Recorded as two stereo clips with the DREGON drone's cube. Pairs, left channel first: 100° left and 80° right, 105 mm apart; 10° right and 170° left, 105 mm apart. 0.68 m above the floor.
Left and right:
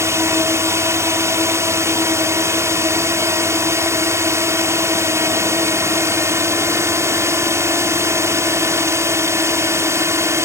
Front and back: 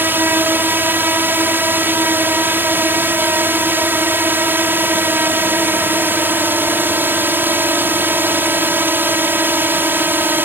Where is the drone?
130° right.